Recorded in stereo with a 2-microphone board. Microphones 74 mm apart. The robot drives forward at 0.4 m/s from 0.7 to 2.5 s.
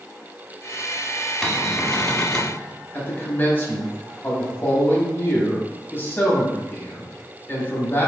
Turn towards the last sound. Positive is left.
turn(degrees=30)  # may be behind; listen again after turning